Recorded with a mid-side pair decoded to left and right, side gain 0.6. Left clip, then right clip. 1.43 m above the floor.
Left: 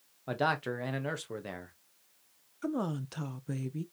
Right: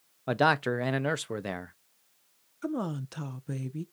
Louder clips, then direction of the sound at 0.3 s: Right 6 dB; 40° right.